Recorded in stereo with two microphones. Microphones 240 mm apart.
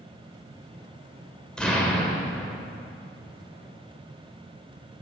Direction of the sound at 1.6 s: 5° left (ahead or behind).